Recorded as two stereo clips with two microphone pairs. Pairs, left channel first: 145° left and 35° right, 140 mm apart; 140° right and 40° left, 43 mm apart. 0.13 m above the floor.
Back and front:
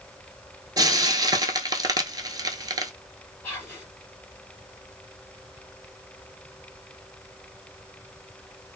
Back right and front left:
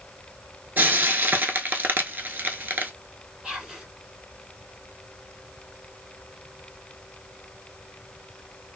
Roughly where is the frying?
Ahead.